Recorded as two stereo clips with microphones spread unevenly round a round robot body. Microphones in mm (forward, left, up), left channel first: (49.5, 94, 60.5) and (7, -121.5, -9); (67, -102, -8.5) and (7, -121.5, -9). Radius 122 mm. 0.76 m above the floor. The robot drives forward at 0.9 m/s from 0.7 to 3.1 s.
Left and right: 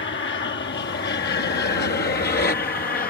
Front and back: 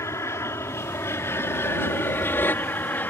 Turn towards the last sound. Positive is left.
turn(degrees=40)